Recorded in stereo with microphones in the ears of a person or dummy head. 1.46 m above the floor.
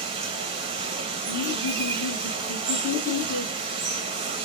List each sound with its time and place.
0.0 s running water: 30° right (ahead or behind), 1.0 m
1.3 s laughter: 15° left (ahead or behind), 1.9 m